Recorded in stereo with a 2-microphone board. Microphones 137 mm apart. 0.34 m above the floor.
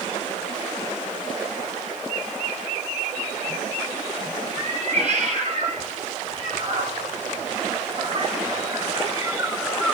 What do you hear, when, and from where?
4.6 s a cat meowing: 60° right (ahead or behind), 3.5 m; by 9.9 s 10° left (ahead or behind), 0.8 m